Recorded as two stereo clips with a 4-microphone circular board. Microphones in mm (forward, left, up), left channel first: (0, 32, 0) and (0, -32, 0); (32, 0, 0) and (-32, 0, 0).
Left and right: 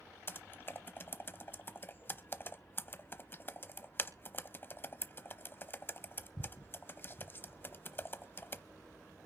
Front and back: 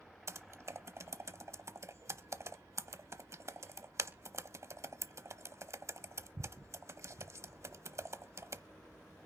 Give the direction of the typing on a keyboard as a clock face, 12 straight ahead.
7 o'clock.